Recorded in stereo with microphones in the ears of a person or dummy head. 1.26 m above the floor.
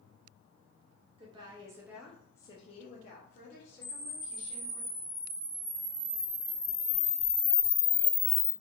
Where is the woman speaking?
30° right (ahead or behind), 0.8 m; by 4.8 s 55° left (ahead or behind), 1.4 m.